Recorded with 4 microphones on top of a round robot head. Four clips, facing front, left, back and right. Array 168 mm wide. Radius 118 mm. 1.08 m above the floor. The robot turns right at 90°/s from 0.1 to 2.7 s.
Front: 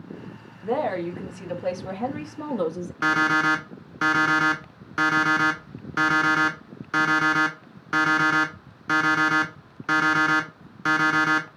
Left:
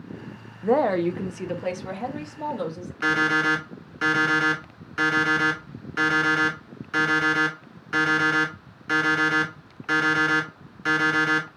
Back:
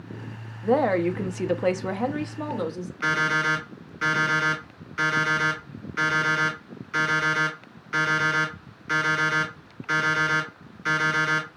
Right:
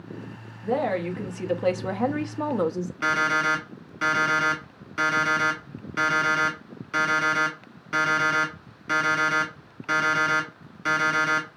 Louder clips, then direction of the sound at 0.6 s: Left 5 dB, back 4 dB; 110° left.